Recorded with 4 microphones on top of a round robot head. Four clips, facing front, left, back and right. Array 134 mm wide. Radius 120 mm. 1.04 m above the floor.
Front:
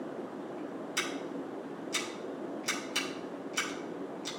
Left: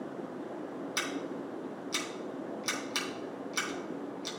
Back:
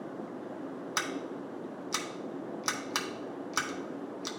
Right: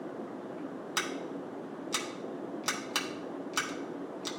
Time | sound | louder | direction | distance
1.0 | scissors | right 1 dB, back 1 dB | 150° right | 0.7 m